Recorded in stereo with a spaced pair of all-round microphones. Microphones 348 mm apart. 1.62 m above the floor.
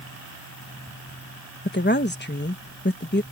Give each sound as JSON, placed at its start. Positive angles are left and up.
{"t": 1.6, "sound": "a woman speaking", "side_deg": 30}